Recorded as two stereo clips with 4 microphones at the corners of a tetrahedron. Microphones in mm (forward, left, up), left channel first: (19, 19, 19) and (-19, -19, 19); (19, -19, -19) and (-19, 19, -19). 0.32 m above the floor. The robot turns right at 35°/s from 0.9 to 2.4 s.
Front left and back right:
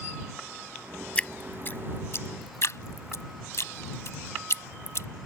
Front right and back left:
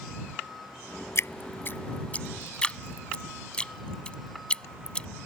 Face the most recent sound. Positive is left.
turn(degrees=25)